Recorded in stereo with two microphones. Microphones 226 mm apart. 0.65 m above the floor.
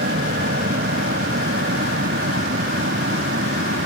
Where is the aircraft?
60° right (ahead or behind); by 3.9 s 65° right (ahead or behind).